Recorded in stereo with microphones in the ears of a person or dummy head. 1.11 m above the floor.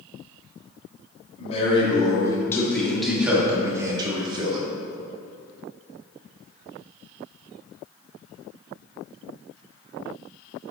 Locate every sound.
1.4 s a man speaking: 35° left (ahead or behind), 1.8 m; by 4.7 s 35° right (ahead or behind), 2.0 m